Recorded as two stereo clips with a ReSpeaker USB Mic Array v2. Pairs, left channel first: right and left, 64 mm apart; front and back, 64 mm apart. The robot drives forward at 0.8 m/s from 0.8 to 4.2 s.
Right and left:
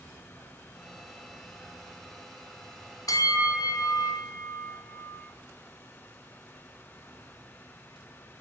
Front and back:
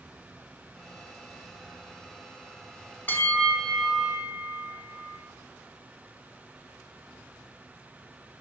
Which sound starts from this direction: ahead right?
A bell, at 3.1 s.